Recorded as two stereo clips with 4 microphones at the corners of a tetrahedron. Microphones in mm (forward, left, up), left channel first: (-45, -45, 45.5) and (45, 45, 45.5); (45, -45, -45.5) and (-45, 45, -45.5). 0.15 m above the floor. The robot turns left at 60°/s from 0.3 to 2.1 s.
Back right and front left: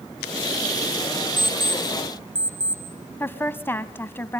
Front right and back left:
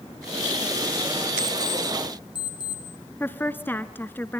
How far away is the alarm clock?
About 3 m.